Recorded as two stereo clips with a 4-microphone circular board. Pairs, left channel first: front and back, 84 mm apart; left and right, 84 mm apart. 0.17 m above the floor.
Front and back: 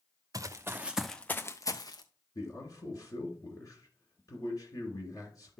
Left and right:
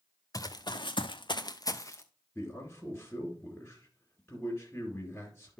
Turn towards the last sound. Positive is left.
turn(degrees=25)